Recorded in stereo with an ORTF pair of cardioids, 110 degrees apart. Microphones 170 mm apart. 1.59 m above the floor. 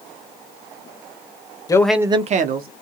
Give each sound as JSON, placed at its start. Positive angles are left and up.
{"t": 1.7, "sound": "a man speaking", "azimuth_deg": 20, "distance_m": 0.7}